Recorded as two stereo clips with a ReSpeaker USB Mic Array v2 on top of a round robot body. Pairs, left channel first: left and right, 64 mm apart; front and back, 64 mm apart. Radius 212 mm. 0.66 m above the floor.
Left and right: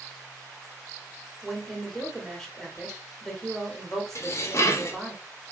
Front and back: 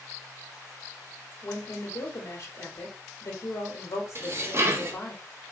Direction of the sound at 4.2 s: 130° left.